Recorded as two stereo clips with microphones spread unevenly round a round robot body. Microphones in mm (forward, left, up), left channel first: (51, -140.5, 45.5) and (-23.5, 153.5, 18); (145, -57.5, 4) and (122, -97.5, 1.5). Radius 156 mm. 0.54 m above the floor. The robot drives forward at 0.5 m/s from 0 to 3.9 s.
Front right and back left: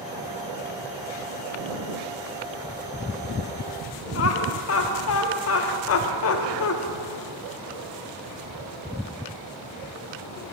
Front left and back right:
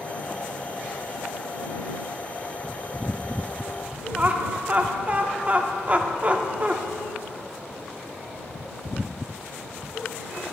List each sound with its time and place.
4.2 s laughter: 85° right, 0.8 m